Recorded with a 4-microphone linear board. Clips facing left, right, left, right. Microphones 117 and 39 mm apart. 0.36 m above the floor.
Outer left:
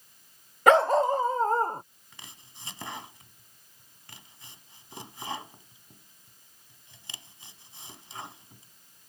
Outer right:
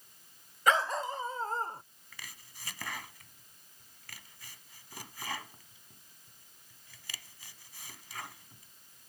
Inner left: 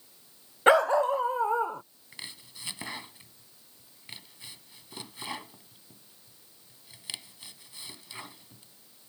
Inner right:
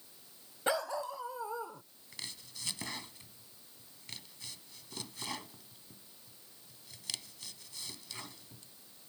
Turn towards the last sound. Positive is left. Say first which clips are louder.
# even, inner left 2 dB
turn(degrees=25)  # may be behind; listen again after turning